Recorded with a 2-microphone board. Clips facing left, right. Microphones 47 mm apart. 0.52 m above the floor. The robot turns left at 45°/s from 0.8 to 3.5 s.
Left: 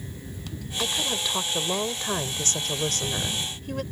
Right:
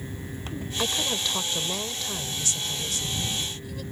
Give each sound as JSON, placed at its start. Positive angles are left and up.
{"t": 0.8, "sound": "a woman speaking", "azimuth_deg": -170}